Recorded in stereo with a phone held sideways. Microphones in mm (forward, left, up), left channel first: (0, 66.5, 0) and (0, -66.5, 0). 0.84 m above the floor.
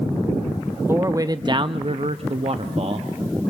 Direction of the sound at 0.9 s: 15° right (ahead or behind).